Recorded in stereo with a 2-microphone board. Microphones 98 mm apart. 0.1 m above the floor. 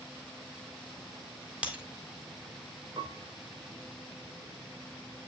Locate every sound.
1.6 s breaking glass: 10° right (ahead or behind), 1.7 m
3.0 s a piano: 45° right (ahead or behind), 0.9 m